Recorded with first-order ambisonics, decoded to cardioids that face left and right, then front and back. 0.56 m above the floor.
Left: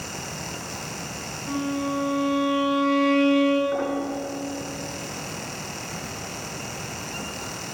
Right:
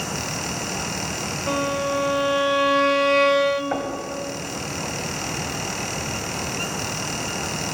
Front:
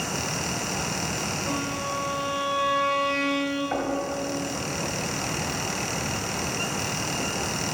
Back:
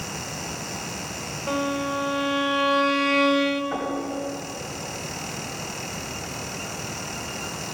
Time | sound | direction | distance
1.5 | a violin | 115° right | 1.0 m
3.7 | knocking | 70° right | 2 m